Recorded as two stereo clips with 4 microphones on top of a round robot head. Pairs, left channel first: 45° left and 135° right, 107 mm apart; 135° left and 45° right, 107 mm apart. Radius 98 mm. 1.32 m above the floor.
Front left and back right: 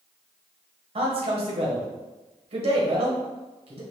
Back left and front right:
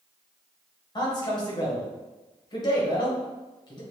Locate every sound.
0.9 s a man speaking: 170° right, 1.2 m